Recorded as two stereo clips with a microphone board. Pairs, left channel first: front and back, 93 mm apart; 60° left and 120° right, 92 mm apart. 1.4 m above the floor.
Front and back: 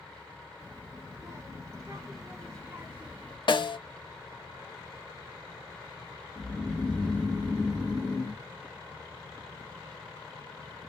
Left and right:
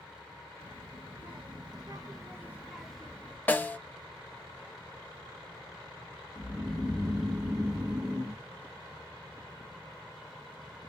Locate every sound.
0.6 s a child speaking: 125° right, 1.4 m; by 3.4 s 115° left, 0.7 m
3.5 s a snare drum: 10° right, 0.5 m
6.3 s snoring: 85° right, 1.2 m